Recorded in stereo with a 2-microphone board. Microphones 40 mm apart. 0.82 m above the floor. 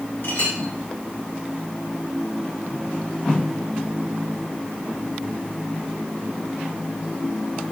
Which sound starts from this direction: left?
A clink, at 0.2 s.